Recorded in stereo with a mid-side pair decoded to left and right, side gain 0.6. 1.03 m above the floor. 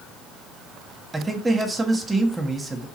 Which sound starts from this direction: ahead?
A man speaking, at 1.1 s.